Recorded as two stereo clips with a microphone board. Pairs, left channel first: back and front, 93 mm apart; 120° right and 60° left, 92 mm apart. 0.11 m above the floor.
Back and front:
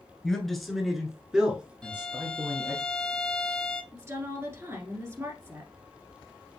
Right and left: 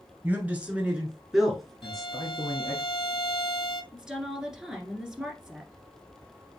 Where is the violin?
100° right, 0.5 m.